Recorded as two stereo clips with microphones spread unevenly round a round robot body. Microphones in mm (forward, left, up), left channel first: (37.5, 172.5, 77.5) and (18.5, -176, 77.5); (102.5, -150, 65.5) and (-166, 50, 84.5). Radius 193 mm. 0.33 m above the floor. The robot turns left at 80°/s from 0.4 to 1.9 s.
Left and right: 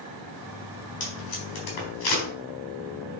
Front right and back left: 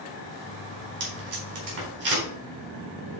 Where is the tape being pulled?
155° left, 4 m; by 2.2 s 85° left, 4 m.